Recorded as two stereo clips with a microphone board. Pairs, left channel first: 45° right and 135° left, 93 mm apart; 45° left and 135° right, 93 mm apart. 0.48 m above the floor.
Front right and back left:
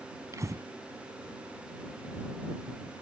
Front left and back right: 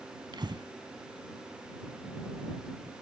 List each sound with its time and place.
0.3 s breathing: 170° right